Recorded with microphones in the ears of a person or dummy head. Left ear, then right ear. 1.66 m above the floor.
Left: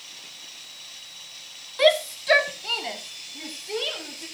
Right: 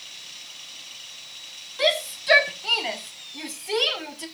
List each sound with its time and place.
1.8 s a shout: 25° left (ahead or behind), 1.5 m; by 4.2 s 35° right (ahead or behind), 3.5 m